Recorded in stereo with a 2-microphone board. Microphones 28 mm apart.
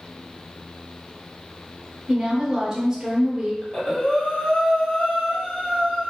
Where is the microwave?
No microwave in this recording.